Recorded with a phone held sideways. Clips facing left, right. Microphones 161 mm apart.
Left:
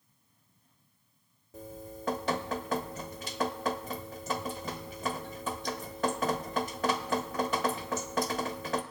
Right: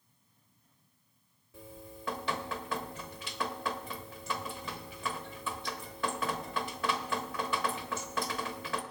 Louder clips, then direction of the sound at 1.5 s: Left 5 dB; 40° left (ahead or behind).